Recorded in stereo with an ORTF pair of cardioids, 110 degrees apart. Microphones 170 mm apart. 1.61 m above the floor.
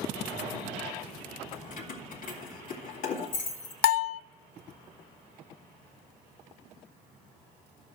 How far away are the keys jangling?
About 2 m.